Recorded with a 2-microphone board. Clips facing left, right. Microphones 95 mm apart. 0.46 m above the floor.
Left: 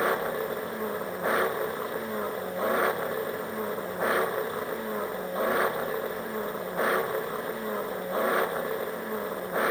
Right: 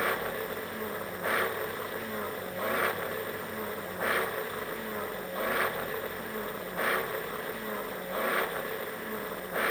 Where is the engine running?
20° left (ahead or behind).